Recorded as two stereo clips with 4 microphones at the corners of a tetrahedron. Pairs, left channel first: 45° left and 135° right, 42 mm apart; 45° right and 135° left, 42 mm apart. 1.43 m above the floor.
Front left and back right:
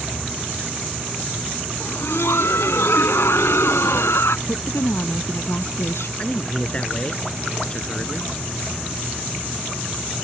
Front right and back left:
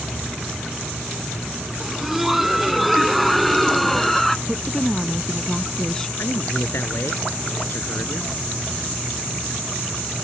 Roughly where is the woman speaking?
Ahead left.